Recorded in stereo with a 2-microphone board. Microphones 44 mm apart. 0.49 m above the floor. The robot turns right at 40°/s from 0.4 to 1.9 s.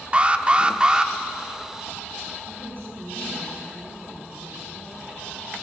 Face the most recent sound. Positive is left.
turn(degrees=-70)  # may be behind; listen again after turning